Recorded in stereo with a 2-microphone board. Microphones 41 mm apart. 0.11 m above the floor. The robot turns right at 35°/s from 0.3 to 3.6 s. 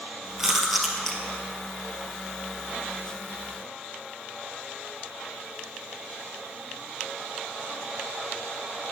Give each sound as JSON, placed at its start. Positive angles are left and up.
{"t": 0.4, "sound": "chewing", "side_deg": -10, "distance_m": 1.4}